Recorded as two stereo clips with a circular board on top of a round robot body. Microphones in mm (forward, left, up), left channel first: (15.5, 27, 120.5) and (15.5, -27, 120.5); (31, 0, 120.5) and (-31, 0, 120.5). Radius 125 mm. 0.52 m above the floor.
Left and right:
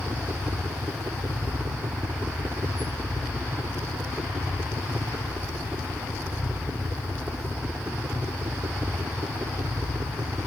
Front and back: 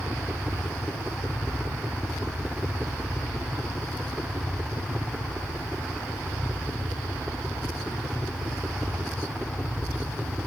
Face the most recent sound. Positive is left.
turn(degrees=-110)